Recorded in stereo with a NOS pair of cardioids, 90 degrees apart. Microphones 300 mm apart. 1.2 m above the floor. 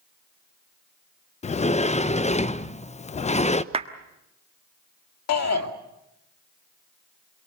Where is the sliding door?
25° left, 0.7 m.